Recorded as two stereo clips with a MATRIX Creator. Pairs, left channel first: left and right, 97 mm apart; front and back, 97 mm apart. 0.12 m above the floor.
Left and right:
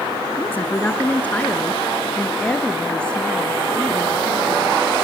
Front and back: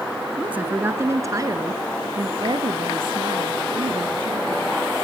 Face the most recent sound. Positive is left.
turn(degrees=170)